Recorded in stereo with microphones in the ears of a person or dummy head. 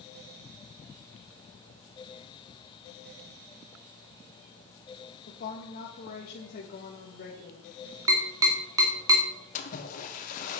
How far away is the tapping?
About 1.7 m.